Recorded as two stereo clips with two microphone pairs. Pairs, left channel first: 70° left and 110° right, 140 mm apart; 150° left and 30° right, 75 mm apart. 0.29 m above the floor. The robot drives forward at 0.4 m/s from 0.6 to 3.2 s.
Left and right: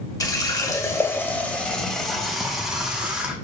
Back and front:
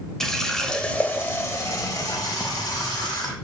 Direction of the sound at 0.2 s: 80° left.